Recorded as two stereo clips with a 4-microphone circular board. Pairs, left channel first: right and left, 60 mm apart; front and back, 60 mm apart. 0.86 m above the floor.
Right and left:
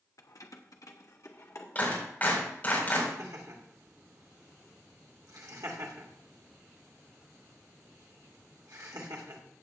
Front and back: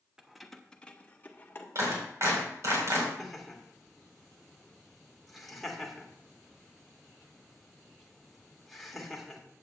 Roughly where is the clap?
Behind right.